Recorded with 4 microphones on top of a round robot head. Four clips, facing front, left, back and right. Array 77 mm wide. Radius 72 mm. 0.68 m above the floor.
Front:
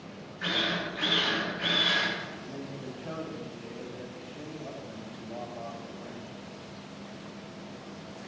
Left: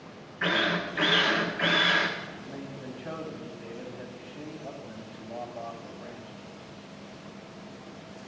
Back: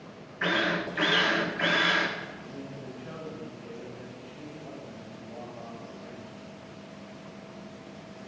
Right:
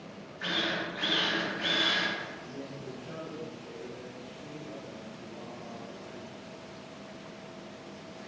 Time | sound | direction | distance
0.4 | a drill | 140° left | 1.5 m
2.3 | a man speaking | 60° left | 3 m